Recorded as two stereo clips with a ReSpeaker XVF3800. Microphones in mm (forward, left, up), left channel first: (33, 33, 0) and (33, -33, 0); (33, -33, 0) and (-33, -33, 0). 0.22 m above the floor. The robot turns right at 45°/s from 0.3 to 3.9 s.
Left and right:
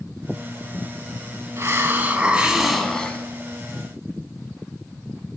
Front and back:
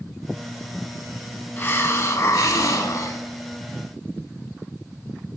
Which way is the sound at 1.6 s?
55° right.